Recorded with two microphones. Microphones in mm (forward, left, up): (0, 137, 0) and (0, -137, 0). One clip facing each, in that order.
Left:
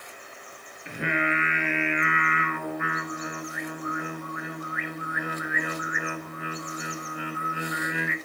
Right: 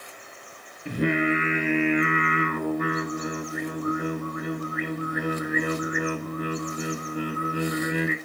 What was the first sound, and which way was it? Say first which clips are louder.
Singing: right 7 dB; 40° right (ahead or behind).